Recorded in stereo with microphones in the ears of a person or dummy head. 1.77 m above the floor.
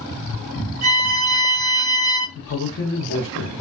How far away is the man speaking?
About 0.8 m.